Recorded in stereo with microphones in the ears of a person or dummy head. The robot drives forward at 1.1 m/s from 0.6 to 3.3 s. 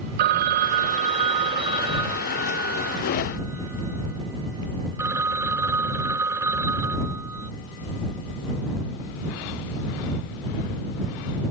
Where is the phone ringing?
50° right (ahead or behind); by 7.5 s 15° right (ahead or behind).